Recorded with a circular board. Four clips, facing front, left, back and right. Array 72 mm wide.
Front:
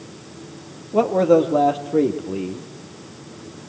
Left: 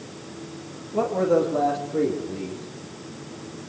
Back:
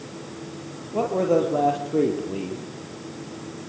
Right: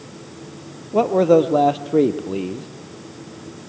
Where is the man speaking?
60° right, 3 m; by 2.7 s 90° right, 3.5 m.